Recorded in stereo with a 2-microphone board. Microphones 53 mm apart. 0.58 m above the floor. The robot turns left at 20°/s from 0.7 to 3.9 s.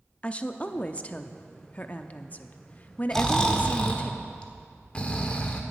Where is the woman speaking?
25° left (ahead or behind), 0.6 m.